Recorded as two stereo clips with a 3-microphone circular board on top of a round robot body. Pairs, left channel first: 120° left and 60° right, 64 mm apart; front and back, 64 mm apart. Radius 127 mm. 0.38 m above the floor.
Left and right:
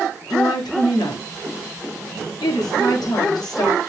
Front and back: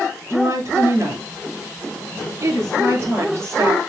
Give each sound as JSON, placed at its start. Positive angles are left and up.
{"t": 0.3, "sound": "a woman speaking", "azimuth_deg": 130, "distance_m": 7.0}